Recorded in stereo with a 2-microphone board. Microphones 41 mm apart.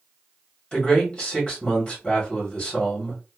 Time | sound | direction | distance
0.7 | a man speaking | 20° left (ahead or behind) | 1.3 m